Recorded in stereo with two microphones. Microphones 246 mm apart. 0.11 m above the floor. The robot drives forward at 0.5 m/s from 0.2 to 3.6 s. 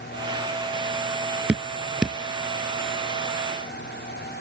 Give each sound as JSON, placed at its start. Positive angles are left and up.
{"t": 1.5, "sound": "dripping", "side_deg": -5}